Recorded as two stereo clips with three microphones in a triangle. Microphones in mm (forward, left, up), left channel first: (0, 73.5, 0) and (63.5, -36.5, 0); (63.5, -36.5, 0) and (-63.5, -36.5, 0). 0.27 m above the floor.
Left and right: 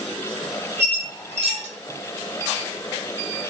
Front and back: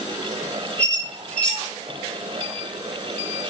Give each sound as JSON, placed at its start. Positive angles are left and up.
{"t": 0.8, "sound": "a squeak", "azimuth_deg": -80, "distance_m": 0.7}